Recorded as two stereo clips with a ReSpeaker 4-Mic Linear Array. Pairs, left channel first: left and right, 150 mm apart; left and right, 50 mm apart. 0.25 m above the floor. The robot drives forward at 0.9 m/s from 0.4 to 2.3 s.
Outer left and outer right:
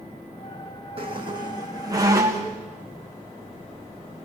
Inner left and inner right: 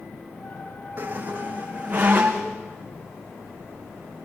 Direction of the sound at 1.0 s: 40° right (ahead or behind).